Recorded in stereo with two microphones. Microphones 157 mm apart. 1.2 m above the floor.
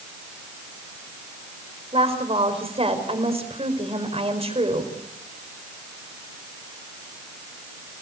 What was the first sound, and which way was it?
A woman speaking, 40° right (ahead or behind).